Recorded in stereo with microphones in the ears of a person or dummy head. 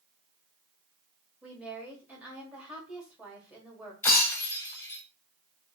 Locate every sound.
1.4 s a woman speaking: 20° right (ahead or behind), 1.5 m
4.0 s breaking glass: 20° left (ahead or behind), 1.2 m